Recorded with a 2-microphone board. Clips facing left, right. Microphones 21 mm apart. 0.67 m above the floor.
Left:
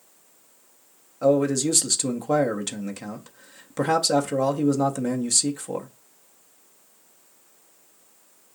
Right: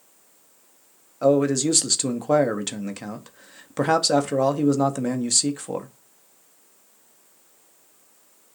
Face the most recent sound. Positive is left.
turn(degrees=-15)  # may be behind; listen again after turning